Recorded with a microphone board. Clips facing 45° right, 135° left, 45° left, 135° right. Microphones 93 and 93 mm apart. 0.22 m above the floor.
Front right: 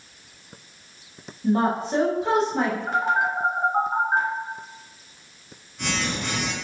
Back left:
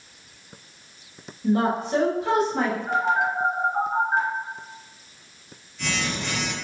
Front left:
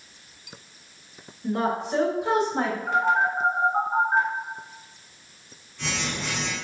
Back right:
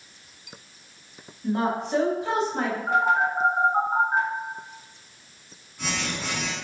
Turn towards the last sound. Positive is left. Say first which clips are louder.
# even, back right 1 dB
turn(degrees=-65)